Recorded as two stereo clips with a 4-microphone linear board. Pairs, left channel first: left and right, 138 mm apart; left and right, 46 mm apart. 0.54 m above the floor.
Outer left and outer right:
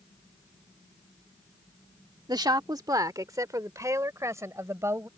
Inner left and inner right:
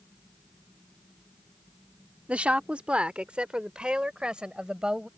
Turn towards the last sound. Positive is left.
turn(degrees=-20)  # may be behind; listen again after turning